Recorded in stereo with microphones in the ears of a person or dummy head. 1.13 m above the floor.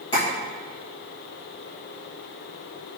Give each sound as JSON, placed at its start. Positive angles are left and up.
{"t": 0.1, "sound": "tapping", "side_deg": 20, "distance_m": 1.3}